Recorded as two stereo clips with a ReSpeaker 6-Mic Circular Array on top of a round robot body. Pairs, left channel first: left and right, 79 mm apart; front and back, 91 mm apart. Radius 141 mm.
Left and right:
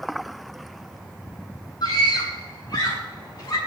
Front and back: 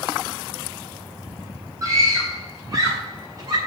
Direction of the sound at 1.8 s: 125° left.